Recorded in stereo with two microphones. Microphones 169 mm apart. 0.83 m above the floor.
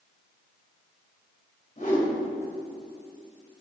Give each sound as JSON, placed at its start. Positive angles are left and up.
{"t": 1.8, "sound": "a whoosh", "side_deg": 50, "distance_m": 2.5}